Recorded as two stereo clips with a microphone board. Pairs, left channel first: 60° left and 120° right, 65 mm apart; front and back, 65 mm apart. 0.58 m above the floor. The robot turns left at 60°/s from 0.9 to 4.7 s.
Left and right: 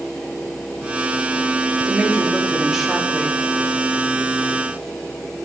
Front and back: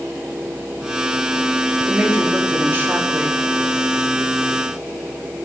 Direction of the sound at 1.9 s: 145° right.